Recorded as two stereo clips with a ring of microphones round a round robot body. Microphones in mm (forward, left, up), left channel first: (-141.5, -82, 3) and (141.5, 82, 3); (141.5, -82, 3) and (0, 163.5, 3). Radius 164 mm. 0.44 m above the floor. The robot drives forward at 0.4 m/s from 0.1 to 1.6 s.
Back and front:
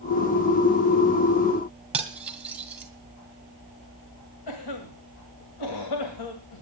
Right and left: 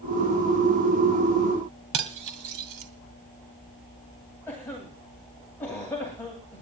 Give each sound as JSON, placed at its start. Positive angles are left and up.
{"t": 1.9, "sound": "cutlery clinking", "azimuth_deg": 115, "distance_m": 2.5}
{"t": 4.5, "sound": "a cough", "azimuth_deg": -145, "distance_m": 2.0}